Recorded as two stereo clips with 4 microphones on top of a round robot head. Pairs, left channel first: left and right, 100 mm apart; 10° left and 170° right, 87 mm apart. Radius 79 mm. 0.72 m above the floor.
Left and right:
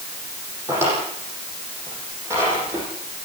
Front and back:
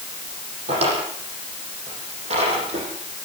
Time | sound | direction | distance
0.7 | a drawer | 160° right | 9 m